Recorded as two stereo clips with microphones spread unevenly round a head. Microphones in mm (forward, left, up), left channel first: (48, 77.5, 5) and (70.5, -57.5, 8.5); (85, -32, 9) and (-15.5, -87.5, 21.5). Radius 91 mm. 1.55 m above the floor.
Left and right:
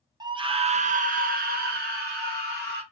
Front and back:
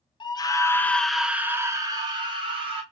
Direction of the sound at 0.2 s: 20° right.